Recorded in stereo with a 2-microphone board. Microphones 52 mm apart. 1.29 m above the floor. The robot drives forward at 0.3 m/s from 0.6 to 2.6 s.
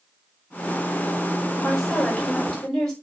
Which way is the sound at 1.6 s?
10° left (ahead or behind).